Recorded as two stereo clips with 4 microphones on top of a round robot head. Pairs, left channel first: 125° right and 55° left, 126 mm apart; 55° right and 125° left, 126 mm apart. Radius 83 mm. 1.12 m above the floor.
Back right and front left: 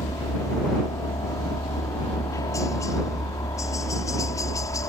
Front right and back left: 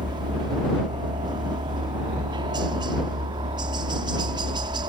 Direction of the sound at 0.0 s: 175° left.